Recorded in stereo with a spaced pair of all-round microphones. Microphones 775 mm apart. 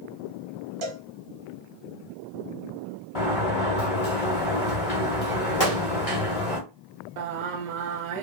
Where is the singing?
70° right (ahead or behind), 0.6 m.